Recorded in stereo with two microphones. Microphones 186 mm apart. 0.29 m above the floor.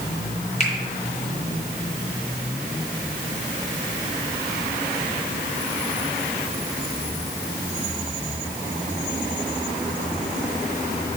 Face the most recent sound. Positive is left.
turn(degrees=40)  # may be behind; listen again after turning